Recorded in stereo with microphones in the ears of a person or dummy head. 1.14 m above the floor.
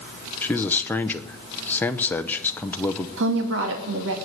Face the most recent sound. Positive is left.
turn(degrees=-70)  # may be behind; listen again after turning